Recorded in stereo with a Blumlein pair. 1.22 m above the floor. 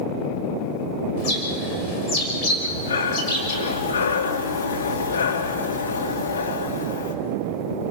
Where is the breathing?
65° left, 2.5 m.